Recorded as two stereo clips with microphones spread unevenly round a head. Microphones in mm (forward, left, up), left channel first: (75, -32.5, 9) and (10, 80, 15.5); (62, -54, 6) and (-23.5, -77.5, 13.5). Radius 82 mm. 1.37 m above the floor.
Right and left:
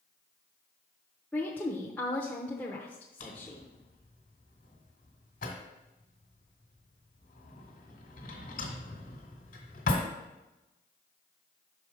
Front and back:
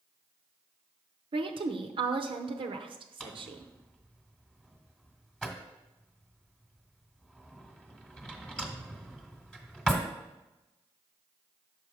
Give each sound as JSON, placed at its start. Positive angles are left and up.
{"t": 1.3, "sound": "a woman speaking", "azimuth_deg": -145, "distance_m": 0.7}
{"t": 3.2, "sound": "a drawer", "azimuth_deg": -75, "distance_m": 1.5}